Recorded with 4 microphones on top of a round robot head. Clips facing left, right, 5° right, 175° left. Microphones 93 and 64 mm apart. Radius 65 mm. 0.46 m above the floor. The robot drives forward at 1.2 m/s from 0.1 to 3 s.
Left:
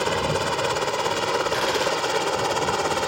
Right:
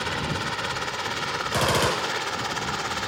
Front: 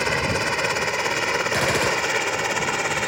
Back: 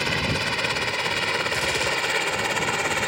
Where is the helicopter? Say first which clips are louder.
Left 6 dB, front 3 dB; 60° left; by 3.1 s 80° left.